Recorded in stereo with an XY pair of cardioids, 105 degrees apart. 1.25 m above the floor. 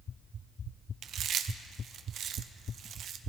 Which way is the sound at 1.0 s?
65° right.